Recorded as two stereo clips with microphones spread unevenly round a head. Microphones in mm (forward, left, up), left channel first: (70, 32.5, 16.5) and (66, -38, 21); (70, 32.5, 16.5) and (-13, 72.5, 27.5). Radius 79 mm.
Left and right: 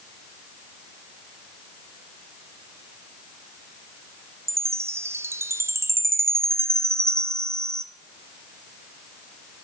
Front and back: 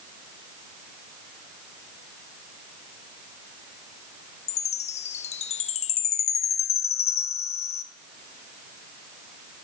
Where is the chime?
40° right, 0.6 m.